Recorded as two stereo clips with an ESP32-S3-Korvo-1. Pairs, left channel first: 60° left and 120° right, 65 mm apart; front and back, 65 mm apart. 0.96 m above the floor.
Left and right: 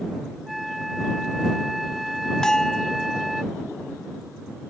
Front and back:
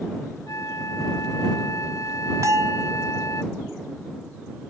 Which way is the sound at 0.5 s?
30° right.